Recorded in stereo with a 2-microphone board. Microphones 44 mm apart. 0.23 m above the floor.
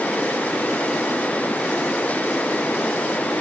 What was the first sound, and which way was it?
Only background noise.